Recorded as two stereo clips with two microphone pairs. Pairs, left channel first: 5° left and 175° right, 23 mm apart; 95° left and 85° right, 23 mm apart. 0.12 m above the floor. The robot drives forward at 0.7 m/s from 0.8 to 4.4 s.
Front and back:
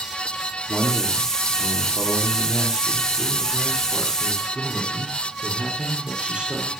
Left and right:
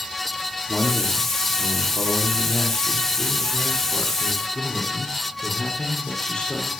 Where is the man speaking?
135° left, 7 m; by 6.7 s 145° left, 9 m.